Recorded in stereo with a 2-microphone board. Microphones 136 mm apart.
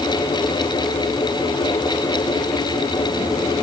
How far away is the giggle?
No giggle in this recording.